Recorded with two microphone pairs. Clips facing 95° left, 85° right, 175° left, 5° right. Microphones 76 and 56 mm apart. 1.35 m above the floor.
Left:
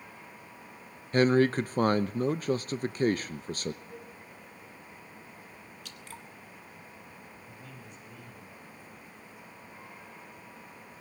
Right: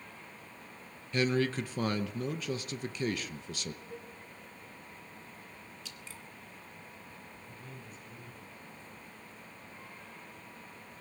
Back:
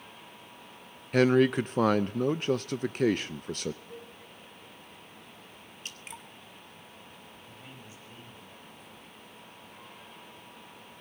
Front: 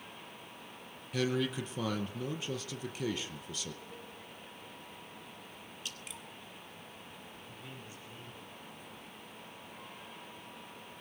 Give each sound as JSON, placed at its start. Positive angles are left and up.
{"t": 1.1, "sound": "a man speaking", "azimuth_deg": 145, "distance_m": 0.7}
{"t": 3.9, "sound": "a cowbell", "azimuth_deg": 175, "distance_m": 8.5}
{"t": 5.8, "sound": "dripping", "azimuth_deg": 125, "distance_m": 1.7}
{"t": 7.5, "sound": "a man speaking", "azimuth_deg": 110, "distance_m": 9.5}